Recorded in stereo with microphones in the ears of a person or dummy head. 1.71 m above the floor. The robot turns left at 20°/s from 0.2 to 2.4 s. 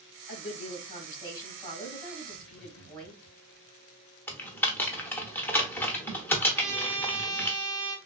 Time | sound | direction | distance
0.3 | a woman speaking | 50° left | 2 m
2.2 | laughter | 20° left (ahead or behind) | 1.6 m
4.3 | typing on a keyboard | 15° left (ahead or behind) | 0.7 m
6.5 | a trumpet | 10° right (ahead or behind) | 0.8 m